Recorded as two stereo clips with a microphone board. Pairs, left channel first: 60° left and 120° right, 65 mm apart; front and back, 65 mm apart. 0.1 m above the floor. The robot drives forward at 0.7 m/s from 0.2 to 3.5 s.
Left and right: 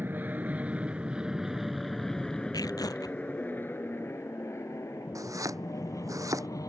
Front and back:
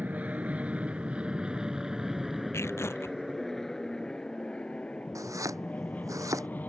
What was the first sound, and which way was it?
An aircraft, 140° right.